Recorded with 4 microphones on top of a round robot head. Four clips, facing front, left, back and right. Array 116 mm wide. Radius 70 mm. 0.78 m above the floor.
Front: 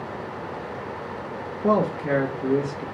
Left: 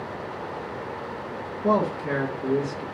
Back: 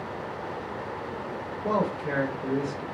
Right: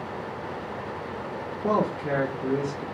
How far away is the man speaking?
About 1.3 m.